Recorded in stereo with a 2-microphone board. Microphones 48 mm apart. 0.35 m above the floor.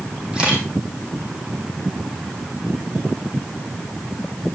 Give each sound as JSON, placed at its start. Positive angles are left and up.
{"t": 0.3, "sound": "a camera shutter", "side_deg": -15, "distance_m": 4.0}